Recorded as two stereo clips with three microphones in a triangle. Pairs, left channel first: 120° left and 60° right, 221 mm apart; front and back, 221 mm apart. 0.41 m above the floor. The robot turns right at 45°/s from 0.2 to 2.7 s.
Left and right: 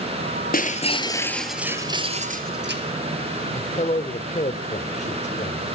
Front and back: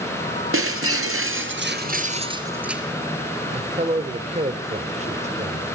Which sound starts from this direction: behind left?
A man speaking, at 3.5 s.